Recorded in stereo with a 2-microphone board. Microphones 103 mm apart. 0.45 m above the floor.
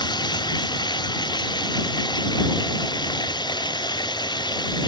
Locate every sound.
0.0 s running water: 45° left (ahead or behind)